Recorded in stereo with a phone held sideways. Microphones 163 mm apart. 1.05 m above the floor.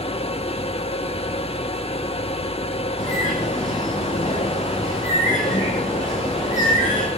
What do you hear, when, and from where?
0.0 s a machine running: 40° left (ahead or behind), 0.8 m
3.0 s a bird: 55° left (ahead or behind), 7.5 m